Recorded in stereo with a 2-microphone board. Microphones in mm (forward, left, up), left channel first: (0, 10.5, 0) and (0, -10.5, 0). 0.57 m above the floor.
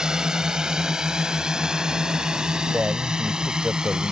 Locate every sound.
0.0 s a drone: 35° right (ahead or behind); by 4.1 s 40° right (ahead or behind)
2.7 s a man speaking: 70° right (ahead or behind)